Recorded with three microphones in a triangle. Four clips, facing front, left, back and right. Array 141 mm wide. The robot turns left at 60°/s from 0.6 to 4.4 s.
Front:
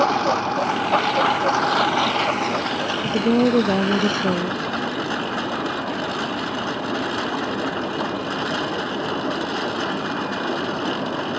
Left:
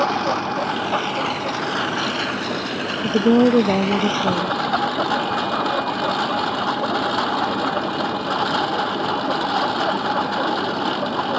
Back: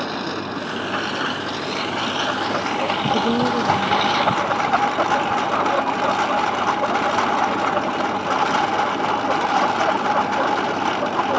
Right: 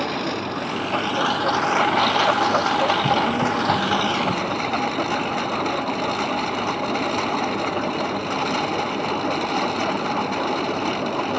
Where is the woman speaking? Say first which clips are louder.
Left 5 dB, front 3 dB; 100° left; by 4.7 s 20° left.